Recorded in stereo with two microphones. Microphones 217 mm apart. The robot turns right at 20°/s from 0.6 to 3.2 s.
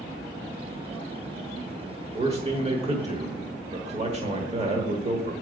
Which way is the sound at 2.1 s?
30° right (ahead or behind).